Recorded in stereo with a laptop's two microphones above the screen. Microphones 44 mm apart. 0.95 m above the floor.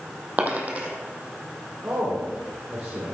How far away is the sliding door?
No sliding door in this recording.